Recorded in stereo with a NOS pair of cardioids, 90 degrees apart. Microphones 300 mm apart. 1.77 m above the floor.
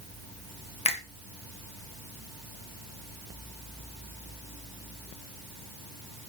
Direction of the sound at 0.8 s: 20° left.